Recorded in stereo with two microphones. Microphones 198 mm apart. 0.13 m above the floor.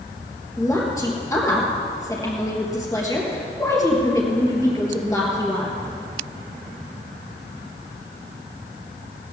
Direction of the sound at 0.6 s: 15° left (ahead or behind).